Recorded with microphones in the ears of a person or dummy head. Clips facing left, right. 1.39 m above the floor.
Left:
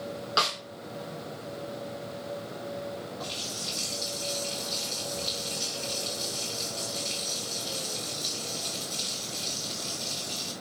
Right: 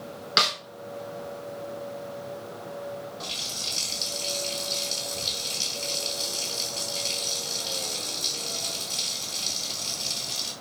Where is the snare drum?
30° right (ahead or behind), 2.0 m.